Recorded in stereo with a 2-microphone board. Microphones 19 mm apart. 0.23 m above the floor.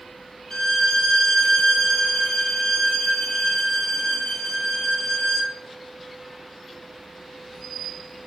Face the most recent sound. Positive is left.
turn(degrees=30)  # may be behind; listen again after turning